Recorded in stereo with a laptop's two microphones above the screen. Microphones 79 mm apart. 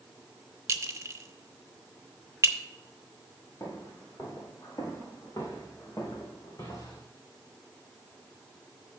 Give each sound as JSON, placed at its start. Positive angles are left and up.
{"t": 0.7, "sound": "a clink", "side_deg": -35, "distance_m": 1.0}
{"t": 3.6, "sound": "footsteps", "side_deg": 40, "distance_m": 5.0}